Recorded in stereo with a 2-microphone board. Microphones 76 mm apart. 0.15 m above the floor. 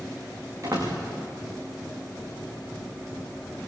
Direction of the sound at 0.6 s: 40° right (ahead or behind).